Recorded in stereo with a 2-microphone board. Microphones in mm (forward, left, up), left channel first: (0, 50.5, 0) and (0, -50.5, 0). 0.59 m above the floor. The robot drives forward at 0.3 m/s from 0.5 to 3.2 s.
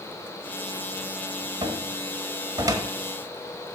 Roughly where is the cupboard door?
Right.